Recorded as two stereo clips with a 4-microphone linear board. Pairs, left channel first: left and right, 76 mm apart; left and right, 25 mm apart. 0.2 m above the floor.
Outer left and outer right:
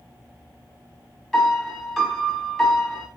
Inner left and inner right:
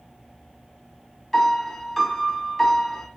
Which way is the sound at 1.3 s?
5° left (ahead or behind).